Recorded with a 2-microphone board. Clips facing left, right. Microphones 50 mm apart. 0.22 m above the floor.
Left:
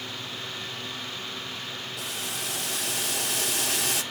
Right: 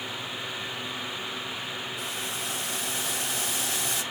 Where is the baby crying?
I don't hear a baby crying.